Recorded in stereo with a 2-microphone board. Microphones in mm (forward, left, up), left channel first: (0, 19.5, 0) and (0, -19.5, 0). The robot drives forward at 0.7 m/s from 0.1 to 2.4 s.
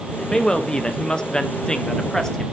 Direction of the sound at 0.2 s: 15° left (ahead or behind).